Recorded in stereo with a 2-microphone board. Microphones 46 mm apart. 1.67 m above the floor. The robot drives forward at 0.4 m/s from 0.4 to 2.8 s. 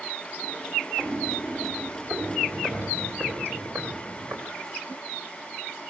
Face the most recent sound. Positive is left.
turn(degrees=-70)  # may be behind; listen again after turning